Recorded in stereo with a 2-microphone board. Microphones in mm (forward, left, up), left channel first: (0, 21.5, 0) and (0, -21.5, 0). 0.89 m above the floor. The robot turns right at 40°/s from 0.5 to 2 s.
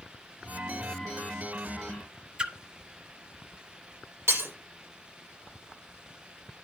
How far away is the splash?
About 1.1 m.